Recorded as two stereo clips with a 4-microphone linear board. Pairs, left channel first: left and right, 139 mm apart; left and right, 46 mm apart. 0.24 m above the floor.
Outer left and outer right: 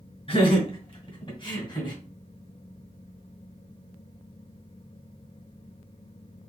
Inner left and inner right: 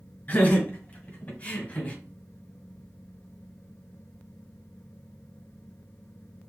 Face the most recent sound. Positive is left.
turn(degrees=30)  # may be behind; listen again after turning